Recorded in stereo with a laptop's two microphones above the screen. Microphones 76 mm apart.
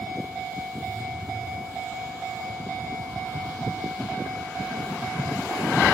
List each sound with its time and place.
0.8 s a phone buzzing: 50° left (ahead or behind), 3 m